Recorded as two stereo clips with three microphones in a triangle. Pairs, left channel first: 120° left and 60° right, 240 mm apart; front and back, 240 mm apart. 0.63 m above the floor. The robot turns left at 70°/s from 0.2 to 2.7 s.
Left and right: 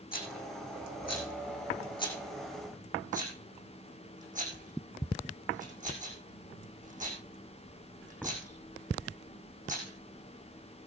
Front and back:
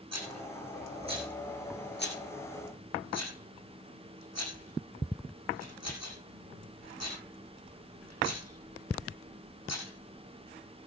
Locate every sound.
0.1 s a rattle: 175° left, 7 m; by 10.9 s straight ahead, 7 m